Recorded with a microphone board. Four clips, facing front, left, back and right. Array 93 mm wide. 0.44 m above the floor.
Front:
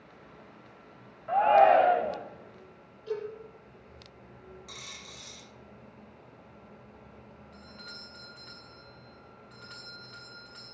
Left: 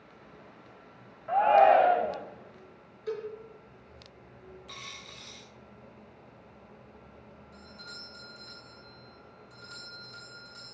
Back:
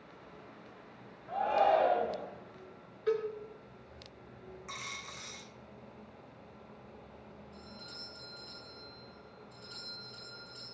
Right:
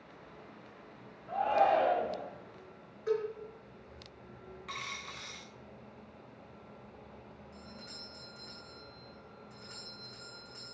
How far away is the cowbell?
About 5 m.